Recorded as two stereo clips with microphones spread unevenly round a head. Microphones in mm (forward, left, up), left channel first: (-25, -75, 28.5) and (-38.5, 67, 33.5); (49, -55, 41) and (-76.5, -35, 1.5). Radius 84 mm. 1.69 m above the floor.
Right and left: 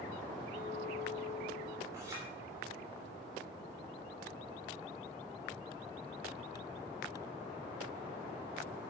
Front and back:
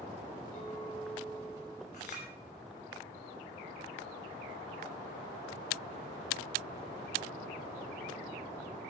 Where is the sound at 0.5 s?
25° right, 3 m.